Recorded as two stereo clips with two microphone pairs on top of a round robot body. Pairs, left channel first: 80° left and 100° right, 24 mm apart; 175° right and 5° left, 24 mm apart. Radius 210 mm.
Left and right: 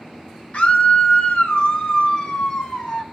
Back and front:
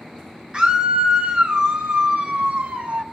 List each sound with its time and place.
0.5 s a scream: 55° left, 2.5 m; by 3.0 s 25° left, 2.5 m